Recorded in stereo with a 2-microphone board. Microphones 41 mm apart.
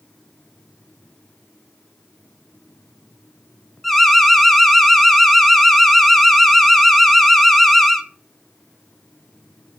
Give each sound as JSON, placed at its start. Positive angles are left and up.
{"t": 3.8, "sound": "an alarm", "side_deg": 5, "distance_m": 0.8}